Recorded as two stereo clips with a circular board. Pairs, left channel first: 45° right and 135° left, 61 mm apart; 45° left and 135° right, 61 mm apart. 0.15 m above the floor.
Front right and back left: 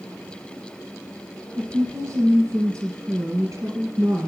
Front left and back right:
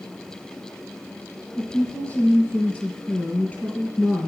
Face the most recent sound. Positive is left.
turn(degrees=105)